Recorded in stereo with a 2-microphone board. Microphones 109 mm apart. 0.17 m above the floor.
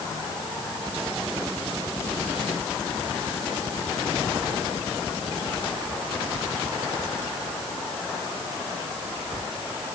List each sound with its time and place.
Only background noise.